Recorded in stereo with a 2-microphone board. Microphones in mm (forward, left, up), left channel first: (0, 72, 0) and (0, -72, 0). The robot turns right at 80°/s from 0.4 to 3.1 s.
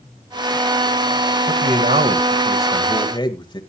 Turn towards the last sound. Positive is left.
turn(degrees=35)